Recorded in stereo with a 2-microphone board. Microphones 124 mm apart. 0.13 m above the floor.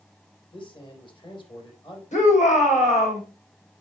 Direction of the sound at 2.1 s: 70° left (ahead or behind).